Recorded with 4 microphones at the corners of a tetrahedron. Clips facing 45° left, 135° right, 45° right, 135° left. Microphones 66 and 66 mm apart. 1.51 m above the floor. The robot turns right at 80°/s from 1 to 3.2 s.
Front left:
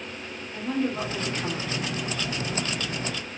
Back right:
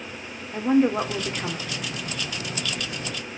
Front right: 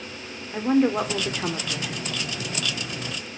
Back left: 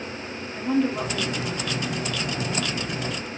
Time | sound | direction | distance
0.5 | a woman speaking | 85° right | 0.7 m